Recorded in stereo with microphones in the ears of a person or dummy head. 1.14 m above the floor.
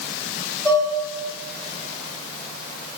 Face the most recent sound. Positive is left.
turn(degrees=5)  # may be behind; listen again after turning